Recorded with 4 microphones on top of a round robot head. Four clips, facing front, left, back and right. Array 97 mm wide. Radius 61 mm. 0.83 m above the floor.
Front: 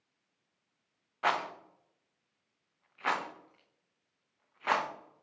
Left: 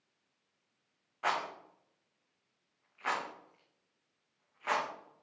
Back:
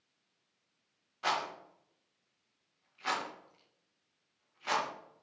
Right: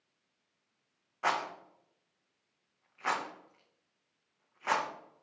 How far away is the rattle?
About 0.7 m.